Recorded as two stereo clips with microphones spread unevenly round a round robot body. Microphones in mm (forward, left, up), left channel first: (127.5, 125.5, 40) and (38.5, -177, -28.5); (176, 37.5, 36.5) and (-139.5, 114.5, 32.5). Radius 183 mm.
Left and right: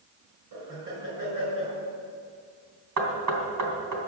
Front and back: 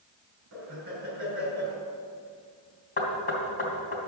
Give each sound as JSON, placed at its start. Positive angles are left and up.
{"t": 0.5, "sound": "laughter", "azimuth_deg": -135, "distance_m": 5.5}
{"t": 3.0, "sound": "knocking", "azimuth_deg": -80, "distance_m": 3.0}